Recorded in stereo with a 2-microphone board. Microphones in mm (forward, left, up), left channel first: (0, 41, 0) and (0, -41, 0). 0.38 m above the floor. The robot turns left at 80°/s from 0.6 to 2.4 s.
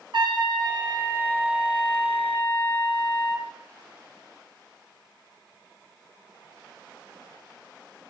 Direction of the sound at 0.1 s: 100° right.